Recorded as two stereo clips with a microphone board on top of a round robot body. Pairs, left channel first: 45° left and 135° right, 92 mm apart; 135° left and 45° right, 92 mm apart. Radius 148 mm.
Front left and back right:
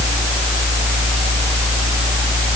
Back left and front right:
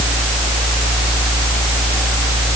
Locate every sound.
Only background noise.